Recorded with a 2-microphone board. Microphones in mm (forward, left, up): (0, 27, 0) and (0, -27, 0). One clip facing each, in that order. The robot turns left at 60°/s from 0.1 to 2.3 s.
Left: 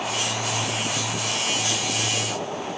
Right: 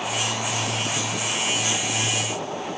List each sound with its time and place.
Only background noise.